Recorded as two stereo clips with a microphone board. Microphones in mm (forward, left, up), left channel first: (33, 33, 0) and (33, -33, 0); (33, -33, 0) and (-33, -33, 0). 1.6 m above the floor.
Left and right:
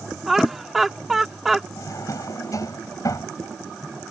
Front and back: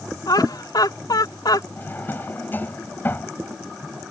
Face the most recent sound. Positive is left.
turn(degrees=60)